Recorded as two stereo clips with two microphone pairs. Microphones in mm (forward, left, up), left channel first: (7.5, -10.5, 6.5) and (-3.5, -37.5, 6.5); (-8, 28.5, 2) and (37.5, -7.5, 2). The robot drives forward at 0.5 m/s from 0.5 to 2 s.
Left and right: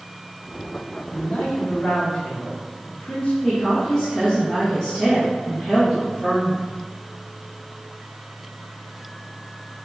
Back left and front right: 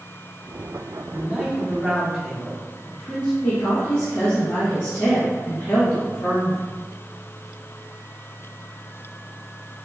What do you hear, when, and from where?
1.1 s a man speaking: 30° left, 1.1 m; by 3.3 s 55° left, 0.9 m
3.4 s a woman speaking: 155° left, 1.0 m